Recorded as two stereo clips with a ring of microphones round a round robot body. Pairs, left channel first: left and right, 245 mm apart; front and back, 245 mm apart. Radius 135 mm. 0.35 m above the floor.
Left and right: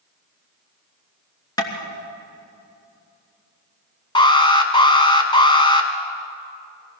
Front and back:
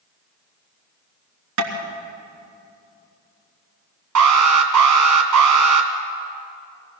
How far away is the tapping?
About 3 m.